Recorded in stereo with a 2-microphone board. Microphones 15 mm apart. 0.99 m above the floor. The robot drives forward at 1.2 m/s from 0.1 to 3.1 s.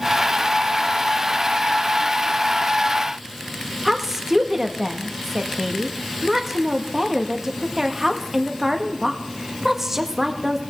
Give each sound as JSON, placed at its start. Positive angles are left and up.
{"t": 3.9, "sound": "a woman speaking", "side_deg": -20, "distance_m": 1.4}